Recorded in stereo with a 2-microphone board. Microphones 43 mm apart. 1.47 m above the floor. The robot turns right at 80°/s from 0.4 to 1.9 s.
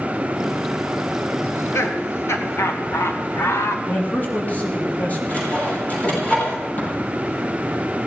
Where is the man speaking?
35° left (ahead or behind), 4 m.